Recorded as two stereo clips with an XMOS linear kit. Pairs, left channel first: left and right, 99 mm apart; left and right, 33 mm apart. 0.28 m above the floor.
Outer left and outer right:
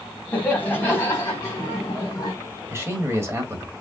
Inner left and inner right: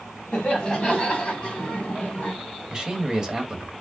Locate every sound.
0.3 s laughter: 15° left (ahead or behind), 2.5 m; by 2.3 s 40° left (ahead or behind), 2.5 m
2.7 s a man speaking: 25° right (ahead or behind), 1.2 m